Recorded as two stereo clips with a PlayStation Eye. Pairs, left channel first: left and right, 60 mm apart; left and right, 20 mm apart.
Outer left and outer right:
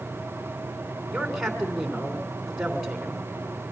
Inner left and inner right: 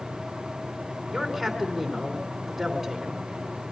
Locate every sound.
1.1 s a man speaking: 5° right (ahead or behind), 3 m